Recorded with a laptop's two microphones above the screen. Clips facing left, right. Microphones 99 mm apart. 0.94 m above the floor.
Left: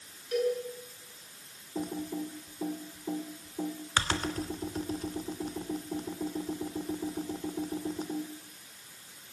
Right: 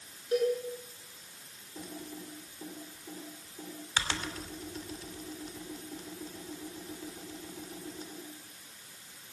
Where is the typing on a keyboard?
45° left (ahead or behind), 2.5 m.